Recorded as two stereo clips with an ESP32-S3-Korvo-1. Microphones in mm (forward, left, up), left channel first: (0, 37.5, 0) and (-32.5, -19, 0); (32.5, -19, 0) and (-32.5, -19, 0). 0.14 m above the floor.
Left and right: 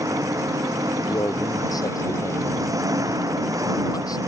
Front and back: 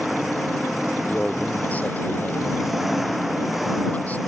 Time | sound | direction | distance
0.0 | an engine running | 95° right | ?
1.1 | a man speaking | 65° left | ?